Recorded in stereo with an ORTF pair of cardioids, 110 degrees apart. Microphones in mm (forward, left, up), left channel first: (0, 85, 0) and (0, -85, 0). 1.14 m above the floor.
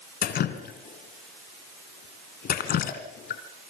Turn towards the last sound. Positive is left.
turn(degrees=60)